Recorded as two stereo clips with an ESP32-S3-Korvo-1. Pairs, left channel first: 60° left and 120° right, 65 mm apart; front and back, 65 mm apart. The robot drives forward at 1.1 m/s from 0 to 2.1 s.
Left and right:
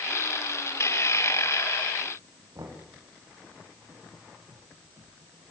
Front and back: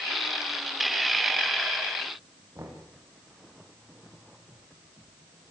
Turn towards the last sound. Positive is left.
turn(degrees=-135)